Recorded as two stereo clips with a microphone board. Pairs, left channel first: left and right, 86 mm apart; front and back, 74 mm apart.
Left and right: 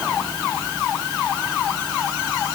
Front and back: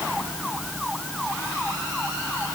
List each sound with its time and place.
Only background noise.